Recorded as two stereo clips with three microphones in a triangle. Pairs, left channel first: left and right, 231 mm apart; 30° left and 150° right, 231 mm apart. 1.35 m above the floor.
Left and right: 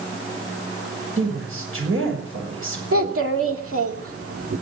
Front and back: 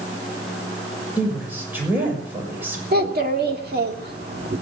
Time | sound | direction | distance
1.2 | a woman speaking | 70° right | 7 m
2.9 | a child speaking | 105° right | 2.0 m